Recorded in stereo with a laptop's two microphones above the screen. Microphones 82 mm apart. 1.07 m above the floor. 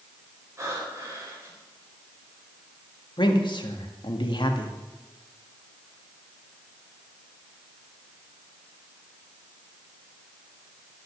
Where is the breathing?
35° right (ahead or behind), 4 m.